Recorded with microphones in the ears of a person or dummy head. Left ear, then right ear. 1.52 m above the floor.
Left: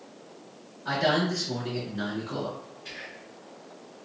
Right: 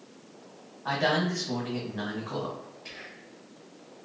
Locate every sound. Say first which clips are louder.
0.8 s a man speaking: left 1 dB; 35° right (ahead or behind), 1.3 m
2.9 s whispering: left 6 dB; 30° right (ahead or behind), 1.5 m